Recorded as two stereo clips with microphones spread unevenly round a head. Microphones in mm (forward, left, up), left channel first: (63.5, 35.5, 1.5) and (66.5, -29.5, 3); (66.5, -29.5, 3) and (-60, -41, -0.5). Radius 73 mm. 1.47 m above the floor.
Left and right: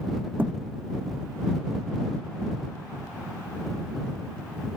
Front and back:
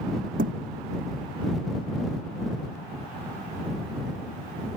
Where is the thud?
165° right.